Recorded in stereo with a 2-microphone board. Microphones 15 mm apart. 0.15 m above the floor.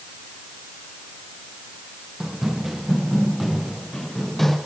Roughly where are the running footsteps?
Right.